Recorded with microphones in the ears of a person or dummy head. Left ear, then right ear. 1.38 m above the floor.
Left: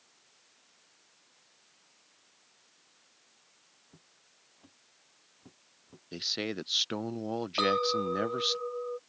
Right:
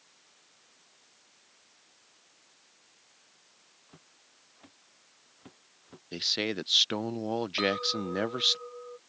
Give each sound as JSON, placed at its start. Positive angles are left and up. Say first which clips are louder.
{"t": 3.9, "sound": "footsteps", "louder": "right 3 dB", "side_deg": -60}
{"t": 6.1, "sound": "a man speaking", "louder": "right 4 dB", "side_deg": -10}
{"t": 7.6, "sound": "a clink", "louder": "left 4 dB", "side_deg": 30}